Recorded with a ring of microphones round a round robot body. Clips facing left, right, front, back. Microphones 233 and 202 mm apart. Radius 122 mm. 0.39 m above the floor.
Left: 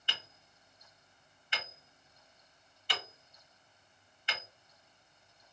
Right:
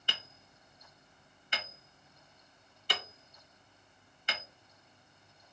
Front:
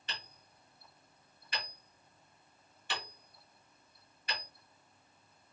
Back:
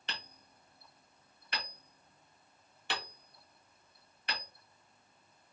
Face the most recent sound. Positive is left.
turn(degrees=-140)